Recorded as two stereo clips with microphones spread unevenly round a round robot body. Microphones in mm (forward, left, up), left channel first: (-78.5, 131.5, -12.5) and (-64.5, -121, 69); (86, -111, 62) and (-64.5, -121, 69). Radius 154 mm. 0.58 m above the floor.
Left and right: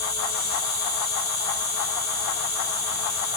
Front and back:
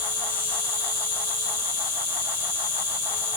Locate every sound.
0.0 s an insect: 25° left, 5 m